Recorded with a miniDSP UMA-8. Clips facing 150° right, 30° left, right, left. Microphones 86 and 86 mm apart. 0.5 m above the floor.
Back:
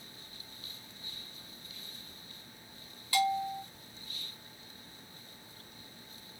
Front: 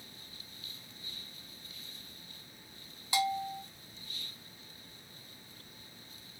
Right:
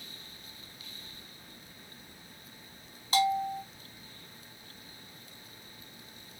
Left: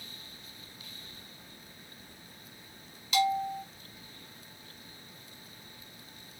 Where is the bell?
40° right, 0.7 m.